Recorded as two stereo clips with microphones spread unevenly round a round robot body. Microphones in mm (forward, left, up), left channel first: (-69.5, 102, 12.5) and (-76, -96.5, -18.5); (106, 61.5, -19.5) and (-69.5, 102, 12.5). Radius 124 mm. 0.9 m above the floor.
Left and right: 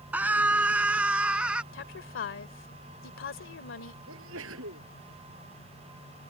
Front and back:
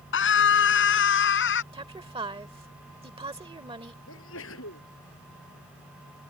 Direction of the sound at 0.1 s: 5° right.